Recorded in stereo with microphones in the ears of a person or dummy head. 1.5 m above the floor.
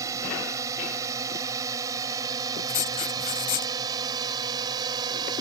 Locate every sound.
0.0 s a drone: 20° right (ahead or behind); by 5.4 s 25° right (ahead or behind)
2.7 s writing: 40° left (ahead or behind)